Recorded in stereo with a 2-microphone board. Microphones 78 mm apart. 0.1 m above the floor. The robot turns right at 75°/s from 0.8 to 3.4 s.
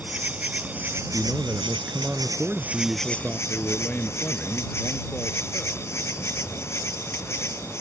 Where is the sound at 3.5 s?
20° left (ahead or behind).